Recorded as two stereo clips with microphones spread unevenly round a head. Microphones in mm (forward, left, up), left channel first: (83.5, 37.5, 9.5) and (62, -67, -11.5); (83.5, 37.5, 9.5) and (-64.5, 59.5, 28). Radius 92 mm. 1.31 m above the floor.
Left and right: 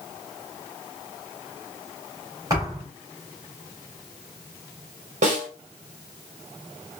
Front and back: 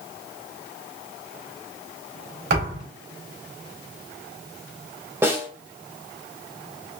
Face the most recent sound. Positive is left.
turn(degrees=-115)